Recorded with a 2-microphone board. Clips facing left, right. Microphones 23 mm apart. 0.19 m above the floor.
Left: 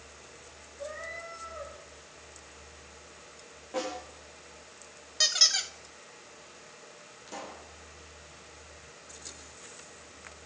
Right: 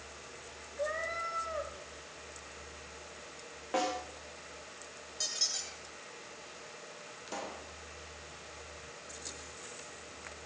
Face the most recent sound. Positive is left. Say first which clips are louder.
# right 1 dB
turn(degrees=-25)  # may be behind; listen again after turning